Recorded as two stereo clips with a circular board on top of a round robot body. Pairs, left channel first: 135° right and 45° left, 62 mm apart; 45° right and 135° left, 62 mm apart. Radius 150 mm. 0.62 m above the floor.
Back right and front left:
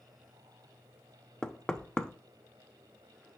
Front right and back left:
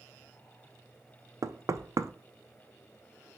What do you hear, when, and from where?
1.4 s knocking: 150° left, 0.6 m